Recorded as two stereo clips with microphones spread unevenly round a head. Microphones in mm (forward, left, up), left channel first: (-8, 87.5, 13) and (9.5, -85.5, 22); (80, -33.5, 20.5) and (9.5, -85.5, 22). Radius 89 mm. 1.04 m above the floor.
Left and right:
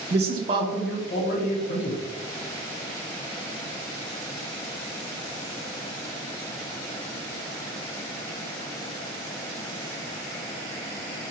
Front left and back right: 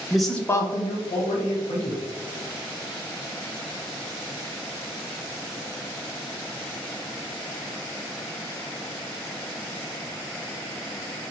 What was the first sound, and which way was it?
A man speaking, 60° right.